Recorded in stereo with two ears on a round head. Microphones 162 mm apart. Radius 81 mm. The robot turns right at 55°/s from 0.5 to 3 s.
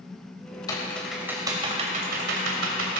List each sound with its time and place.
0.7 s typing on a keyboard: 20° left (ahead or behind), 2.5 m; by 3.0 s 75° right (ahead or behind), 2.5 m